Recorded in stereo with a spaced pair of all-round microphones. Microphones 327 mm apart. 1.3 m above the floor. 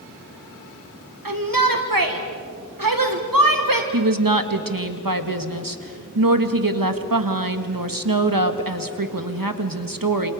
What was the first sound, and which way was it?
A shout, 75° right (ahead or behind).